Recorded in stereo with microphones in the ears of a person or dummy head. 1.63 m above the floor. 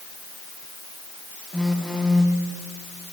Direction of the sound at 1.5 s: Centre (ahead or behind).